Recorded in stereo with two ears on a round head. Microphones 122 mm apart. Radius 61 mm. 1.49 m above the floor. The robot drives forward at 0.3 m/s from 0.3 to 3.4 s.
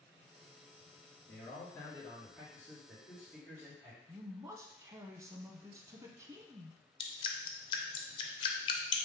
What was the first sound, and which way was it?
A man speaking, 20° left (ahead or behind).